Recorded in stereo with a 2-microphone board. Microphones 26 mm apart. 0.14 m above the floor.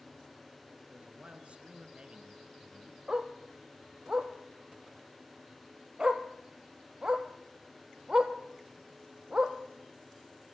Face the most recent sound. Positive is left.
turn(degrees=-30)  # may be behind; listen again after turning